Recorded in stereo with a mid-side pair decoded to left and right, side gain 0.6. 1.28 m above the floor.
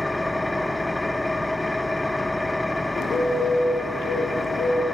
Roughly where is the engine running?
Ahead.